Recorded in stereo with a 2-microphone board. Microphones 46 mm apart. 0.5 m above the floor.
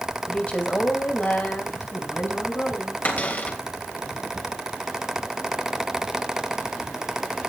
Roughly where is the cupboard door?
Left.